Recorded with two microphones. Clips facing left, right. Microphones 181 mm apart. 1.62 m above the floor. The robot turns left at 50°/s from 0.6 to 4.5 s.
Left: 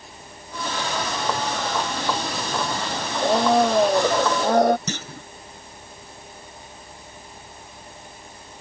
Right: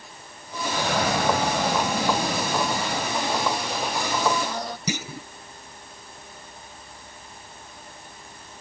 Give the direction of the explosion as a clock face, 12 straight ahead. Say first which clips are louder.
Right 4 dB; 2 o'clock.